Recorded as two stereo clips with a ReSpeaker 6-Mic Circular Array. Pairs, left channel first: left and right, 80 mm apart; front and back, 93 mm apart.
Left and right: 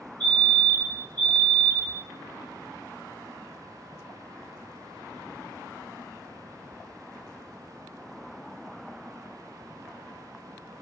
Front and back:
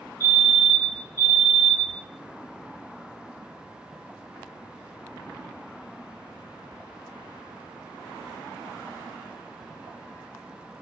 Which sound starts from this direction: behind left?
A fire alarm, at 0.2 s.